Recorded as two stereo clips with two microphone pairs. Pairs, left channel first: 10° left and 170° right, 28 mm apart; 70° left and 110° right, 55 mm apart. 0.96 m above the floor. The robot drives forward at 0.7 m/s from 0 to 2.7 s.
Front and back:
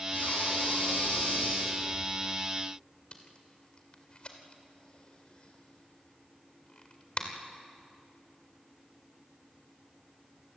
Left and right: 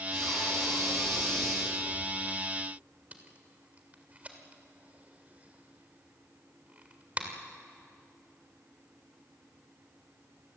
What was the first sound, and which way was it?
Breathing, 10° right.